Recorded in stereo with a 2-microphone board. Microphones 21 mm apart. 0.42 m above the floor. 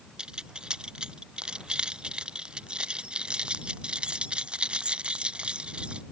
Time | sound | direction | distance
0.2 | keys jangling | 45° right (ahead or behind) | ?